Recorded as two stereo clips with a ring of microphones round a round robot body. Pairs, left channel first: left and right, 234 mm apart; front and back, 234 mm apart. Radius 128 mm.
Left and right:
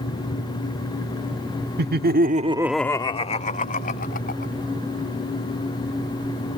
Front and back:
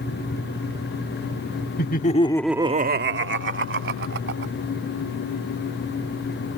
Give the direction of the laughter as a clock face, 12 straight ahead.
2 o'clock.